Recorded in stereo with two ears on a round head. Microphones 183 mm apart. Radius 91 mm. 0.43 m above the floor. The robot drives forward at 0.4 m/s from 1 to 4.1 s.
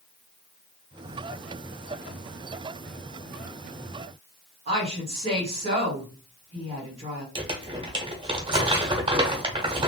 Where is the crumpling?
25° right (ahead or behind), 0.9 m.